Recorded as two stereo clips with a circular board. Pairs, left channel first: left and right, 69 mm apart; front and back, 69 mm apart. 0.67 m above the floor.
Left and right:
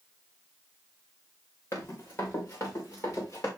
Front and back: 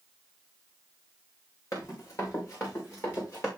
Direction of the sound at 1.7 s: 40° left.